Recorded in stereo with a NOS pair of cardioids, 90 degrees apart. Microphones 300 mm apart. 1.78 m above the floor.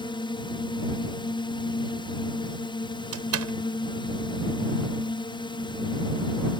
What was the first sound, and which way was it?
A drone, 15° left.